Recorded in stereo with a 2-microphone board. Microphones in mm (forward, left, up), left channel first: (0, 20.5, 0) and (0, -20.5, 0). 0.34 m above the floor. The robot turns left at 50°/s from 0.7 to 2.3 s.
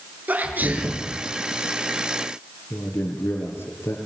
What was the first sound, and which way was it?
A sneeze, 45° right (ahead or behind).